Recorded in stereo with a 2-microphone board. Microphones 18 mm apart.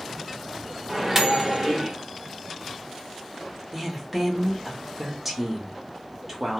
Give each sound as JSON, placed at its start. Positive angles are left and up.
{"t": 0.9, "sound": "a microwave", "side_deg": -20, "distance_m": 0.7}
{"t": 3.7, "sound": "a woman speaking", "side_deg": -20, "distance_m": 0.8}